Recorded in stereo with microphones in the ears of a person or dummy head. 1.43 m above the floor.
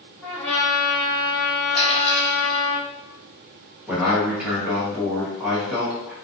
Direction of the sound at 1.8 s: 50° left (ahead or behind).